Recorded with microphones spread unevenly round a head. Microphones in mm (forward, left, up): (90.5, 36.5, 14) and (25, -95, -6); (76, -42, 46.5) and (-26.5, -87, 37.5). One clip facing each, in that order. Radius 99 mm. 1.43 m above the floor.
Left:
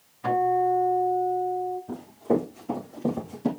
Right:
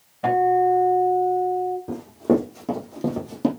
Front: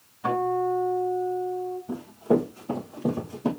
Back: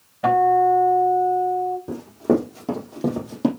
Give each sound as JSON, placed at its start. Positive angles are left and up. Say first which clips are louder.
{"t": 0.2, "sound": "a guitar", "louder": "right 4 dB, back 9 dB", "azimuth_deg": -160, "distance_m": 5.0}
{"t": 1.9, "sound": "running footsteps", "louder": "right 5 dB, back 1 dB", "azimuth_deg": -160, "distance_m": 4.5}